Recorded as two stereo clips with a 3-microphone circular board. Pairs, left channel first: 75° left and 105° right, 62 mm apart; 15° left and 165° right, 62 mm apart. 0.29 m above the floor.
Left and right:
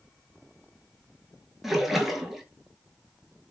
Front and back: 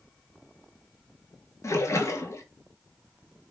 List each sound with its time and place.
1.6 s a splash: 20° right, 0.7 m